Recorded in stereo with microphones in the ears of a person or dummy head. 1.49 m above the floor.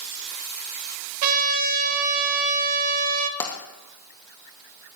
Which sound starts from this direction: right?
A trumpet, at 1.2 s.